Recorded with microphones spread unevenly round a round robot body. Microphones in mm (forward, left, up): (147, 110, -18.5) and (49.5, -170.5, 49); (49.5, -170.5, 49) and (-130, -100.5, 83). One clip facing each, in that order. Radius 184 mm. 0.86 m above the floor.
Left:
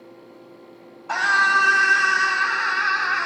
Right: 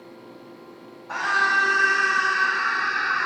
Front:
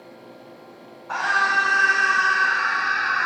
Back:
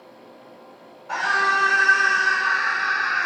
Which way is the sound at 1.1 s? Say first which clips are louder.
Left 2 dB, back 1 dB; 95° left.